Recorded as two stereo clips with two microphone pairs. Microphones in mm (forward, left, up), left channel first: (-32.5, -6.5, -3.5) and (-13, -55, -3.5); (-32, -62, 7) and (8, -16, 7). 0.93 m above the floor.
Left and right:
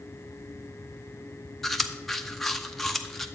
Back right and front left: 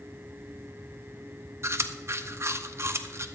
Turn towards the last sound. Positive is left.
turn(degrees=25)